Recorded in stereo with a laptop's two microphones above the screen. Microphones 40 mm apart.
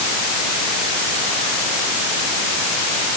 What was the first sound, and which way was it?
Only background noise.